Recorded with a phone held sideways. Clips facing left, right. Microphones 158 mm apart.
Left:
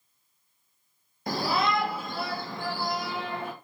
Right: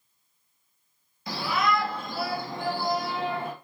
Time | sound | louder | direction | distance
1.3 | a shout | even | 50° left (ahead or behind) | 0.6 m